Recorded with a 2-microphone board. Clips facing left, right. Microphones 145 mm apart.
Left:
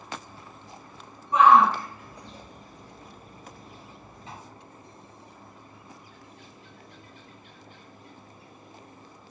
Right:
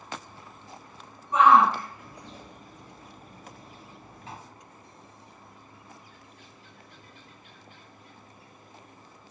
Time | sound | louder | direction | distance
1.3 | a shout | left 1 dB | centre (ahead or behind) | 1.9 m